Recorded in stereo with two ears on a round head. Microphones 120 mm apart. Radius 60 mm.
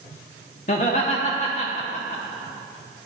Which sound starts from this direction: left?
Laughter, at 0.7 s.